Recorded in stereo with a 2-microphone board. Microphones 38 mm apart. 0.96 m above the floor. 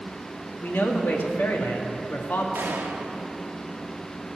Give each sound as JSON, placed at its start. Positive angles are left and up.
{"t": 0.6, "sound": "a man speaking", "side_deg": 70, "distance_m": 1.4}
{"t": 2.5, "sound": "a gunshot", "side_deg": -75, "distance_m": 0.8}